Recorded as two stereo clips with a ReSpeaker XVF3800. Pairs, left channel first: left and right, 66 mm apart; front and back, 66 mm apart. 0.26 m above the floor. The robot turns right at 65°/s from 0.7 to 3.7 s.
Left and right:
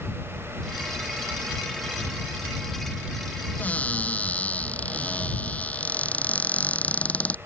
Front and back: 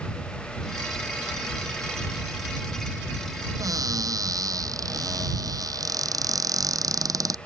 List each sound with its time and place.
3.6 s a cupboard door: 150° left; by 7.4 s 155° left